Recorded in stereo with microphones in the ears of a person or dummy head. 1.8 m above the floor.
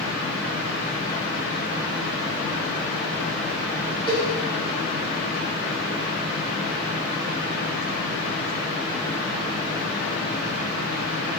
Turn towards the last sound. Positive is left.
turn(degrees=-30)  # may be behind; listen again after turning